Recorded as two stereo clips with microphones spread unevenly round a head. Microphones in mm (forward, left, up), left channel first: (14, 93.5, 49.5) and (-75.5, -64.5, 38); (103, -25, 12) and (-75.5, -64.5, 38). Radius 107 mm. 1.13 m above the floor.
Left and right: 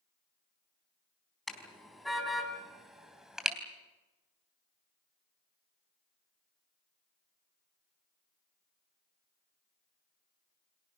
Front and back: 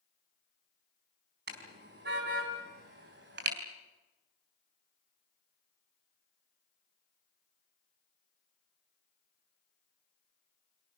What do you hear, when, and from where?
1.5 s a car horn: 150° left, 4.5 m; by 3.6 s 155° left, 3.5 m